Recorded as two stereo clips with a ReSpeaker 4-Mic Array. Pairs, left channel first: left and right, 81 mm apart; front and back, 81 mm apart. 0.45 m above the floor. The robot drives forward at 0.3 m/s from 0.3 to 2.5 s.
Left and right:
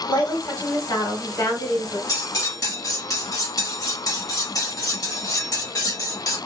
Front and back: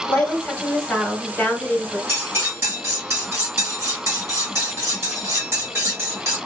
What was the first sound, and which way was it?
A woman speaking, 65° left.